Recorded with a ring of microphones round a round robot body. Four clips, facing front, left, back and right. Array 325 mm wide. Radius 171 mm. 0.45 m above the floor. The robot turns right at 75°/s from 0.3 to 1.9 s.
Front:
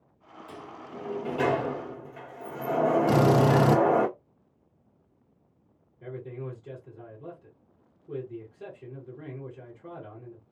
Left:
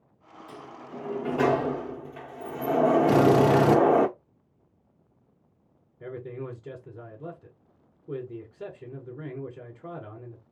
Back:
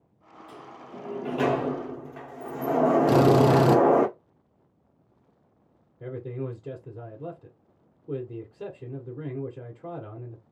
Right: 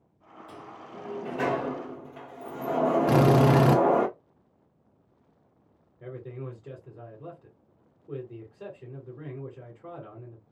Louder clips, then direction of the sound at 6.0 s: Left 3 dB, back 4 dB; 145° left.